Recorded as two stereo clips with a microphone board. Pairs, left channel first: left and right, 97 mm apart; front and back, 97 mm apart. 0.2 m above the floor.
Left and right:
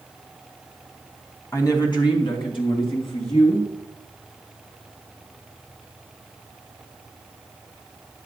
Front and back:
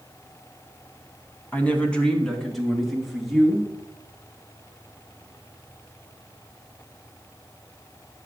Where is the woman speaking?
55° left, 1.4 m; by 3.7 s 95° left, 4 m.